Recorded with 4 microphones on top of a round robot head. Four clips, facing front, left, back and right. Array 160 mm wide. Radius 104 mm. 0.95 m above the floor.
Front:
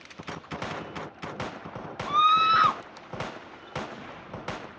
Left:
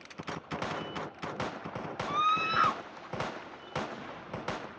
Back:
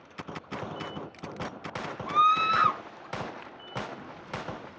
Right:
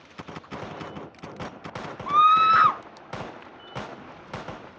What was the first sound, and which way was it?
A scream, 75° right.